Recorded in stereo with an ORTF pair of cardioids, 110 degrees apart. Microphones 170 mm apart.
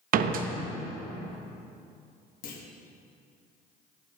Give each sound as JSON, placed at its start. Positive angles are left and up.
{"t": 0.1, "sound": "a door slam", "azimuth_deg": -55, "distance_m": 0.7}
{"t": 2.4, "sound": "a clunk", "azimuth_deg": 60, "distance_m": 1.5}